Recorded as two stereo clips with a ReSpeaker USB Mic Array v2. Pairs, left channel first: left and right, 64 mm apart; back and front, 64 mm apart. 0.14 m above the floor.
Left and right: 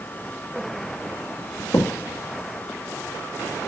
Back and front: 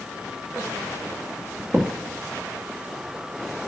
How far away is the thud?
About 3 m.